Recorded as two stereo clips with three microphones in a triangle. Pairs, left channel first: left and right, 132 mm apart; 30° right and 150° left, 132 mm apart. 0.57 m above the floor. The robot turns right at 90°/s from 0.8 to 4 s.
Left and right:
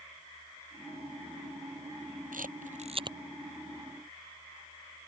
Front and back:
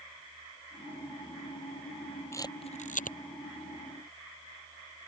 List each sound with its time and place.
2.3 s a camera shutter: 100° right; by 3.2 s 25° right